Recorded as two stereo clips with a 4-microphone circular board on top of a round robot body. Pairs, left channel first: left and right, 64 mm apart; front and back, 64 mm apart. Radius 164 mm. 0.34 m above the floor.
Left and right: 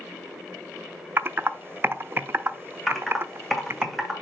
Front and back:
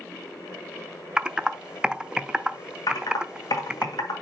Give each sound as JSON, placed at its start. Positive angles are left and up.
{"t": 1.2, "sound": "typing on a keyboard", "azimuth_deg": -110, "distance_m": 0.7}
{"t": 2.9, "sound": "typing on a keyboard", "azimuth_deg": 0, "distance_m": 2.0}